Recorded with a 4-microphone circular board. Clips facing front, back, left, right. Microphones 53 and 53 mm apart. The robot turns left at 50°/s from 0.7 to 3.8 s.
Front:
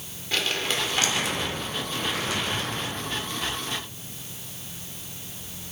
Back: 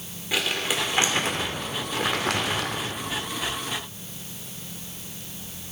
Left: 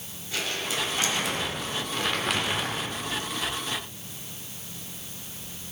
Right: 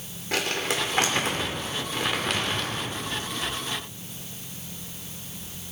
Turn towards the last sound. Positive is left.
turn(degrees=105)